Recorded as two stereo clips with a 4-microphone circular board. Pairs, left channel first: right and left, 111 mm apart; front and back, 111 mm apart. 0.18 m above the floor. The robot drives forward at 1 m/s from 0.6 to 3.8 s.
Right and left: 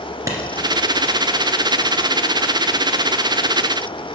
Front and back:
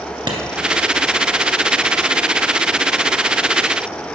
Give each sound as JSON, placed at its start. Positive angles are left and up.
{"t": 0.3, "sound": "a clap", "azimuth_deg": 145, "distance_m": 1.8}